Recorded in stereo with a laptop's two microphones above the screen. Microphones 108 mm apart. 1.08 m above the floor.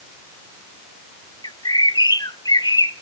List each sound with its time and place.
1.4 s a bird: 40° left (ahead or behind), 1.0 m